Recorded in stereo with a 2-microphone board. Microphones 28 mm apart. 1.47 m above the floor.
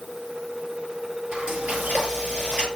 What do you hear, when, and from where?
1.3 s frying: 65° right (ahead or behind), 8 m